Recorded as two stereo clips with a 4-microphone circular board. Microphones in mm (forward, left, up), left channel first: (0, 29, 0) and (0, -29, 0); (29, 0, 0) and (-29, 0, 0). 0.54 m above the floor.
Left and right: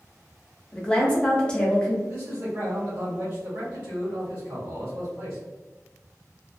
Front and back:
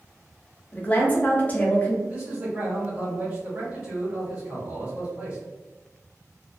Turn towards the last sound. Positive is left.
turn(degrees=-130)